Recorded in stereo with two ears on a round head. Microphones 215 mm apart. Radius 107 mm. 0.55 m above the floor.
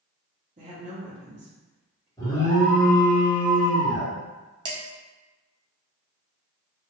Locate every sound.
0.6 s a woman speaking: 30° right (ahead or behind), 1.0 m
2.2 s an alarm: 15° left (ahead or behind), 1.3 m
4.7 s dishes clattering: 20° right (ahead or behind), 0.7 m